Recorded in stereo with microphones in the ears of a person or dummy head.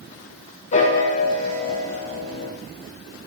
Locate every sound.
0.7 s a piano: 40° left (ahead or behind), 1.3 m